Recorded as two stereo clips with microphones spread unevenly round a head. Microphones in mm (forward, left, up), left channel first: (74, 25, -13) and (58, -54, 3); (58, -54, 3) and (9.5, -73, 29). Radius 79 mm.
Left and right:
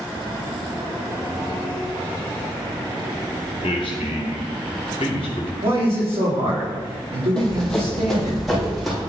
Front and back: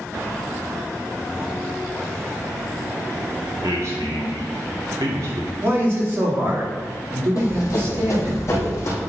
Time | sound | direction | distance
3.6 | a man speaking | 130° left | 0.8 m
5.6 | a man speaking | 110° right | 2.5 m
7.4 | running footsteps | 5° right | 2.5 m